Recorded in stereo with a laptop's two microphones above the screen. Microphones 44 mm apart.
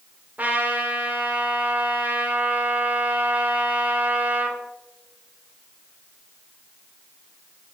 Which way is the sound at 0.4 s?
35° right (ahead or behind).